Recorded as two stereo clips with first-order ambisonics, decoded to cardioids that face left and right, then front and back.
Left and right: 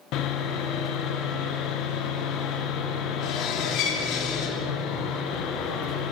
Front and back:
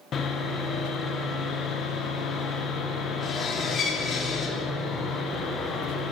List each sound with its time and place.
0.1 s sawing: 60° left, 0.8 m